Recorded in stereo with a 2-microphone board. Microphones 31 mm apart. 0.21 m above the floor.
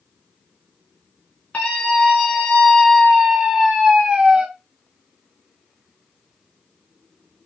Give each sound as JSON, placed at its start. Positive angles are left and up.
{"t": 1.5, "sound": "a scream", "side_deg": 50, "distance_m": 1.9}